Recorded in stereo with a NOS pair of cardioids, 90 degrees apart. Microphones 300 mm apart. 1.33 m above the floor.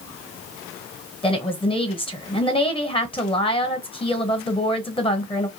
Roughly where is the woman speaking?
Ahead.